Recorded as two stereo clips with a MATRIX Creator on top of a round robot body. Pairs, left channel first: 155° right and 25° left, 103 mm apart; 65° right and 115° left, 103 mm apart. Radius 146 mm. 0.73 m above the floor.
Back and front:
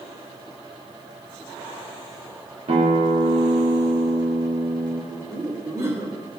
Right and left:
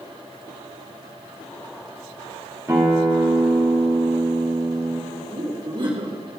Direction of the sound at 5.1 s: 80° left.